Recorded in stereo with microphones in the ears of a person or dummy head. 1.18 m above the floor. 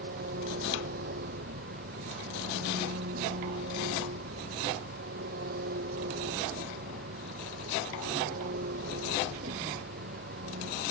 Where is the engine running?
55° right (ahead or behind).